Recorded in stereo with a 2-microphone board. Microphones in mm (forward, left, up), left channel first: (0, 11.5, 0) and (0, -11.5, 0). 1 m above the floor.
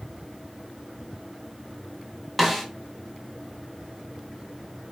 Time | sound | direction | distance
2.4 | a snare drum | centre (ahead or behind) | 0.7 m